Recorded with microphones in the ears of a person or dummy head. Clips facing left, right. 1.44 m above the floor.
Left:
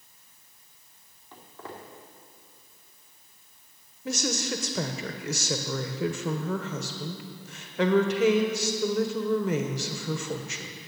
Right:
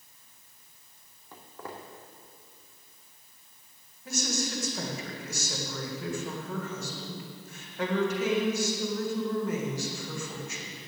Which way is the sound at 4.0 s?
60° left (ahead or behind).